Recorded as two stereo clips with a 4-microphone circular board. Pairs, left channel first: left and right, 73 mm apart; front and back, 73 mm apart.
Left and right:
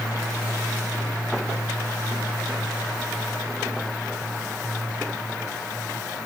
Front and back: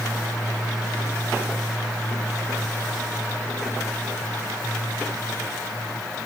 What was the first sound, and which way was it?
Only background noise.